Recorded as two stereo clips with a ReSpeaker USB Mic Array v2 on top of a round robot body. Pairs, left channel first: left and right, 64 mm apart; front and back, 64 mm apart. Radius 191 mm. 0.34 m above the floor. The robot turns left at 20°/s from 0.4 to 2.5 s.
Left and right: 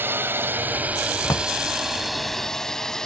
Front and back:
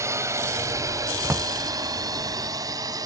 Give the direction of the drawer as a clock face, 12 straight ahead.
8 o'clock.